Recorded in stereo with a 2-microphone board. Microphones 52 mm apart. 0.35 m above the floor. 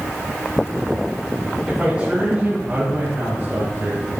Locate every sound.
1.7 s a man speaking: 20° right (ahead or behind), 3.5 m; by 4.1 s 35° right (ahead or behind), 5 m